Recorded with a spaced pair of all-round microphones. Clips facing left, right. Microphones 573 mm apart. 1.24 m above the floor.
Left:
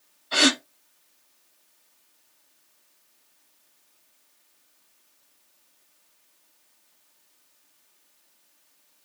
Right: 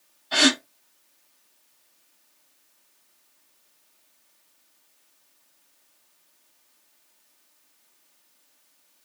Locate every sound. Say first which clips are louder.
0.3 s a gasp: right 1 dB; 15° right (ahead or behind), 1.0 m